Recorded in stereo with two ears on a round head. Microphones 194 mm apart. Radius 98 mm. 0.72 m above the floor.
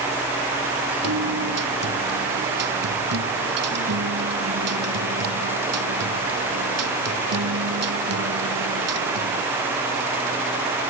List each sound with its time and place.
1.0 s a guitar: 80° right